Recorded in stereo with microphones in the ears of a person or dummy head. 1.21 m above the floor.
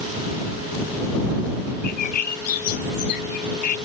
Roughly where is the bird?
Left.